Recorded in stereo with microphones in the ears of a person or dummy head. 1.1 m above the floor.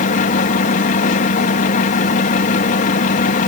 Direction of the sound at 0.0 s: 45° left (ahead or behind).